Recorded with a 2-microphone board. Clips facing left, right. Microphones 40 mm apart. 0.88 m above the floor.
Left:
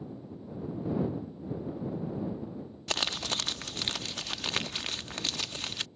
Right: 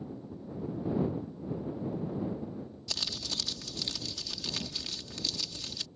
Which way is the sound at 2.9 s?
50° left (ahead or behind).